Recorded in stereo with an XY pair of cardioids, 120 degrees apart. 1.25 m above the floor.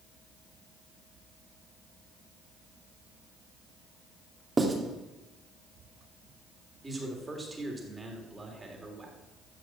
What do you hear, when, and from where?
4.6 s writing: 20° right, 3 m
6.8 s a man speaking: 15° right, 3.5 m